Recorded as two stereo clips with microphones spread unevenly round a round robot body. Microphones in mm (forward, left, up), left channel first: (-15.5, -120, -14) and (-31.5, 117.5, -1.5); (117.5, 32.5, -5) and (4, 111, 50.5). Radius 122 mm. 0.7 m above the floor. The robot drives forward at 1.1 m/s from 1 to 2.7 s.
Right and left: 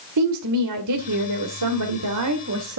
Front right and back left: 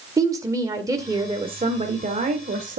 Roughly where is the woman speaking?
Left.